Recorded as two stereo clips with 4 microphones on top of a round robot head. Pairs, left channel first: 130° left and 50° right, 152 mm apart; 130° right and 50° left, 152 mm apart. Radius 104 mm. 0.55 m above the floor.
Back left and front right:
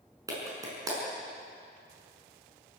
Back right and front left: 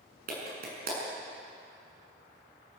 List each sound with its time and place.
0.3 s a clap: 20° left, 6 m